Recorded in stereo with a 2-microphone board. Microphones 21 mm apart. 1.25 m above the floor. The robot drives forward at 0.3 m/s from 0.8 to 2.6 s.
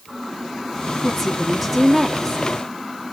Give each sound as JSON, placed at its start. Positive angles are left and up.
{"t": 1.0, "sound": "a woman speaking", "side_deg": 10, "distance_m": 2.0}